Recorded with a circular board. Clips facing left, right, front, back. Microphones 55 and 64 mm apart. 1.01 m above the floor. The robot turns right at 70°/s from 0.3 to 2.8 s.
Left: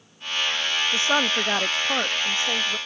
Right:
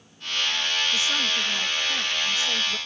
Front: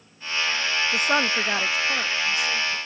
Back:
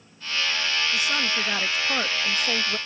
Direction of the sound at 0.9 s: 35° left.